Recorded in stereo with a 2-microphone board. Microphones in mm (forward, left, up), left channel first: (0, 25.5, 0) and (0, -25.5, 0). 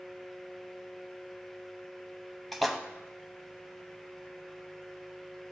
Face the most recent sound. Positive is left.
turn(degrees=0)  # may be behind; listen again after turning